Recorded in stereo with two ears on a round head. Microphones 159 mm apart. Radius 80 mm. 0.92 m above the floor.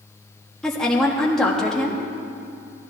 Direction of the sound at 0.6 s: 5° left (ahead or behind).